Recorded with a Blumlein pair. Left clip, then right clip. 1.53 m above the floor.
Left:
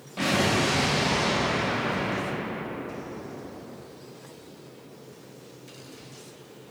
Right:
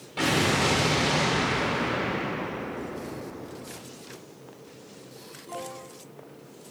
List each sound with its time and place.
0.2 s an explosion: 10° right, 1.1 m